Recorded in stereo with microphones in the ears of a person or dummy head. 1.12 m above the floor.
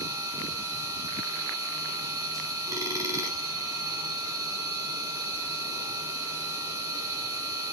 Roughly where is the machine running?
Centre.